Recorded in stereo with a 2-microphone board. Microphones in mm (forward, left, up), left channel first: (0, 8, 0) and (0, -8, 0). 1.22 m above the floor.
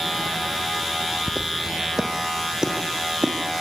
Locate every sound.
1.3 s footsteps: centre (ahead or behind), 3 m; by 3.3 s 45° right (ahead or behind), 4.5 m